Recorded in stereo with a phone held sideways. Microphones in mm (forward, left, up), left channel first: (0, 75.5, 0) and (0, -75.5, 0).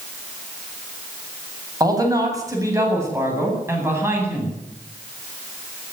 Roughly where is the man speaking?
Right.